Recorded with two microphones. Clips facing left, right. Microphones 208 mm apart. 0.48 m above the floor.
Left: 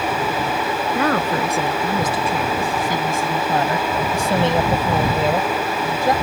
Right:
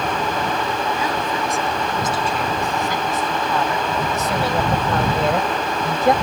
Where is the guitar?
No guitar in this recording.